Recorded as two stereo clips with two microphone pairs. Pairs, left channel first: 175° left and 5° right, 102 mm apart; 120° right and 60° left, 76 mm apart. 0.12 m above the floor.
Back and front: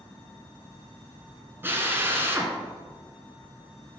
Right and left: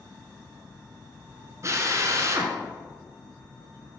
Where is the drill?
50° left, 1.3 m.